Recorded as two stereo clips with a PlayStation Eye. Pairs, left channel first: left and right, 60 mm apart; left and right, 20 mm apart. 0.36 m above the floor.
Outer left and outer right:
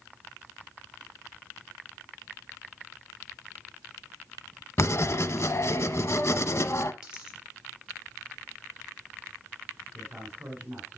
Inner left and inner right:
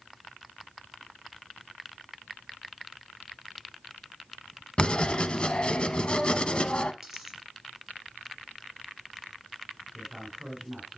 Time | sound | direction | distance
4.8 | writing | 50° left (ahead or behind) | 0.6 m
7.0 | a dropped coin | 15° right (ahead or behind) | 3.5 m
9.9 | a man speaking | 25° right (ahead or behind) | 3 m